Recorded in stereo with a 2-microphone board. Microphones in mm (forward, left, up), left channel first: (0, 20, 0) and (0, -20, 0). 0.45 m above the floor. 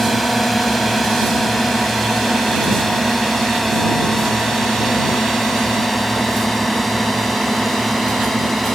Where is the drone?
Centre (ahead or behind); by 8.8 s 5° left (ahead or behind).